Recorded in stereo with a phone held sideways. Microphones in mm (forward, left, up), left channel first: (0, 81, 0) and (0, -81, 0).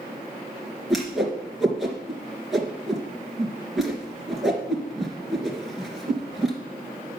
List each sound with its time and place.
0.9 s a whoosh: centre (ahead or behind), 2.5 m